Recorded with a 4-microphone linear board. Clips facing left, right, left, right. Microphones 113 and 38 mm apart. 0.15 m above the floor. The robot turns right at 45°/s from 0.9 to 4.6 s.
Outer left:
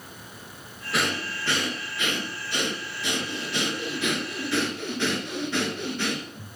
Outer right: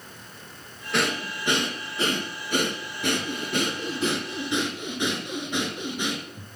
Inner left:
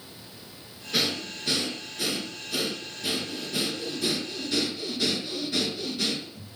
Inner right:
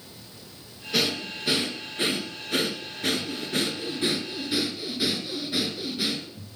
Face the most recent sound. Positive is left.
turn(degrees=-15)